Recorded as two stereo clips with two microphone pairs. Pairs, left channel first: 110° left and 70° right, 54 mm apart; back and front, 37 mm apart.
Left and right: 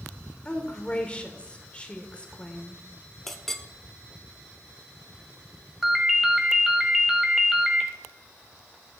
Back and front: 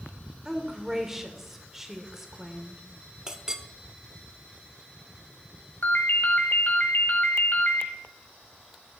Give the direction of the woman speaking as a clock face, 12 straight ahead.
10 o'clock.